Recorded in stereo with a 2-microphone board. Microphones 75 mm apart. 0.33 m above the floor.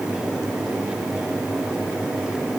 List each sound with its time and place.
Only background noise.